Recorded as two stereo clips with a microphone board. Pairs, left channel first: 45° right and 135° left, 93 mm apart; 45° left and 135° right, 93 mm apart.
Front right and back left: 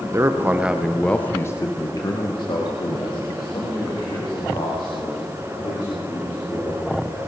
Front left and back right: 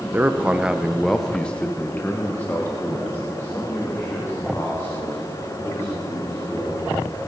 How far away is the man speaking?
About 0.8 m.